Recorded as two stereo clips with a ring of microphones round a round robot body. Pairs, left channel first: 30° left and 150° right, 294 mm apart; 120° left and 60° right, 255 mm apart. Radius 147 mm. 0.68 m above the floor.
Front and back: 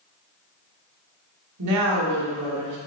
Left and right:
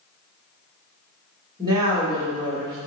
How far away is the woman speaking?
About 2 m.